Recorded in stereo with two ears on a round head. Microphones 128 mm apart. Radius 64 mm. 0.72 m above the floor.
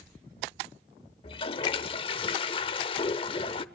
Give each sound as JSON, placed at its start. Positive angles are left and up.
{"t": 1.2, "sound": "a toilet flushing", "side_deg": 35, "distance_m": 0.8}